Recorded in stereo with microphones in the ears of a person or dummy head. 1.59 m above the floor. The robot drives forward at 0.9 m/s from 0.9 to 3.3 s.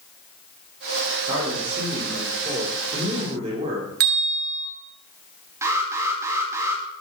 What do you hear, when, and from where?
1.3 s a man speaking: 20° right (ahead or behind), 6 m; by 3.9 s 30° right (ahead or behind), 4 m
4.0 s a bell: 55° right (ahead or behind), 3 m
5.6 s an alarm: 15° right (ahead or behind), 3.5 m